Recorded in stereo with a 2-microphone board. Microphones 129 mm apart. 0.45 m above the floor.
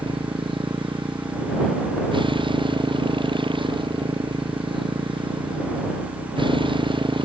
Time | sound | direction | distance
0.0 | a motorcycle | 40° right (ahead or behind) | ?